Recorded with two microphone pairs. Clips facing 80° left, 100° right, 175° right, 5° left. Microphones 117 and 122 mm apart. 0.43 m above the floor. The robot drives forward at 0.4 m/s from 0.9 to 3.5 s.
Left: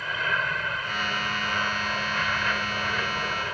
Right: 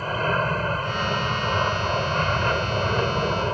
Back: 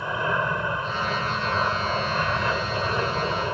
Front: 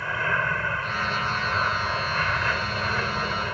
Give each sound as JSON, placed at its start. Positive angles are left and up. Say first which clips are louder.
{"t": 0.0, "sound": "an aircraft", "louder": "right 6 dB, back 2 dB", "azimuth_deg": -115}